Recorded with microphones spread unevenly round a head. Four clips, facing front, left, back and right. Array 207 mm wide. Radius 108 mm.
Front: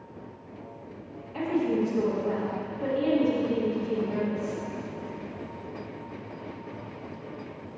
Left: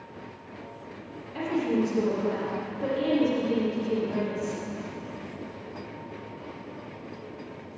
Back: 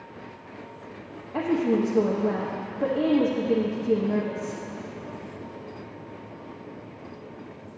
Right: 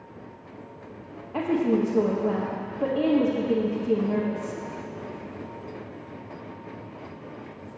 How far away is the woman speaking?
About 1.5 m.